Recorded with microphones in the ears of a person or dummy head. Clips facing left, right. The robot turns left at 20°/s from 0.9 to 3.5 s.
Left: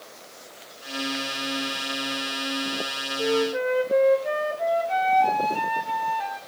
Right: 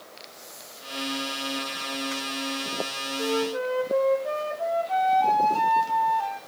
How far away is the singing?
I don't hear singing.